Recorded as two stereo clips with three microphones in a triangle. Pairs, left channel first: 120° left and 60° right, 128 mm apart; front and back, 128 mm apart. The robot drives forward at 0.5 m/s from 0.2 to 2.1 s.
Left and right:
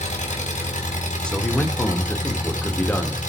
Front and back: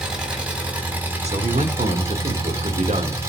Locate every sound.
0.0 s an engine running: 95° left, 3.5 m; by 3.3 s 110° left, 3.5 m
1.2 s a man speaking: 160° right, 2.0 m